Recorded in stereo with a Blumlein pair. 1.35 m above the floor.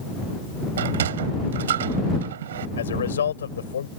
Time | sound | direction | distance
0.8 | a sliding door | 60° right | ?
2.8 | a man speaking | 70° left | ?